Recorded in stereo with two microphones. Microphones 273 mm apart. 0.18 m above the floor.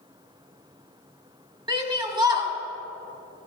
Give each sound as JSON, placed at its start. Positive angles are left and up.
{"t": 1.7, "sound": "a shout", "side_deg": -15, "distance_m": 1.2}